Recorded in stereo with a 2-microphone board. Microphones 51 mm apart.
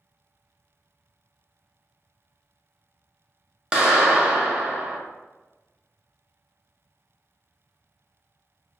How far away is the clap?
About 0.6 m.